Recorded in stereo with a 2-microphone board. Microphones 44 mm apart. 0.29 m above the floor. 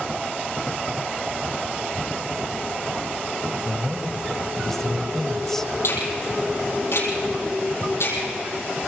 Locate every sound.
3.6 s a man speaking: 10° left (ahead or behind), 1.6 m
5.8 s a finger snap: 70° left (ahead or behind), 8.5 m